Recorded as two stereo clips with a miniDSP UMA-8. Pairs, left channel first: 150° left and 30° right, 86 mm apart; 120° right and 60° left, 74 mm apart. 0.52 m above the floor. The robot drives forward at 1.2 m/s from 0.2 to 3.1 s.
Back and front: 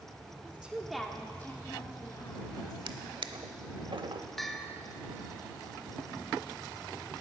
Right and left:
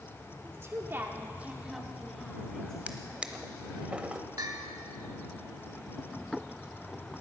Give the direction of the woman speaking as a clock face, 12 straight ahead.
11 o'clock.